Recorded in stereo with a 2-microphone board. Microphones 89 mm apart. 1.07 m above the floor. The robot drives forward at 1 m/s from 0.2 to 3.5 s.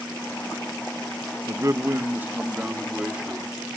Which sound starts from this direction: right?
A man speaking, at 1.5 s.